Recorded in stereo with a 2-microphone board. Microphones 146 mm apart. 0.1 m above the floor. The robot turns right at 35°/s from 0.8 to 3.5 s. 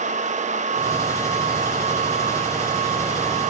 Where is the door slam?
I don't hear a door slam.